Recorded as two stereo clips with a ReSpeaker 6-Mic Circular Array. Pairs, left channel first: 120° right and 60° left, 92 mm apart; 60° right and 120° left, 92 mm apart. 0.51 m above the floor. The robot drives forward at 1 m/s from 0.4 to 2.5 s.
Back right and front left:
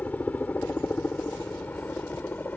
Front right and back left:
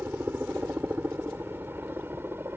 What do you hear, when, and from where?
0.0 s a helicopter: 175° left